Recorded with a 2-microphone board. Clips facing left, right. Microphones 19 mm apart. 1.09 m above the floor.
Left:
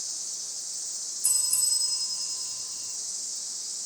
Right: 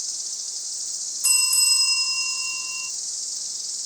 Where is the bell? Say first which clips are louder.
Right 8 dB; 80° right, 2 m.